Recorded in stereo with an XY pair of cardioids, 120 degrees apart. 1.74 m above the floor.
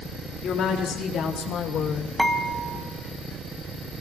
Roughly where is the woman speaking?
Ahead left.